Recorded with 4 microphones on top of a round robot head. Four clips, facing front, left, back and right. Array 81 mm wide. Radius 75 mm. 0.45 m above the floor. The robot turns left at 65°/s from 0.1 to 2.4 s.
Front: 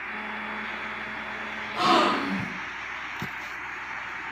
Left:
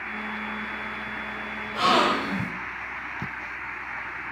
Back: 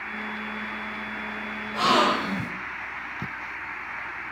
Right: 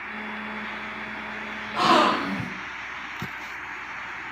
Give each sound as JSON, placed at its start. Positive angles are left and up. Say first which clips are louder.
{"t": 1.7, "sound": "a gasp", "louder": "right 2 dB, even", "azimuth_deg": -80, "distance_m": 0.6}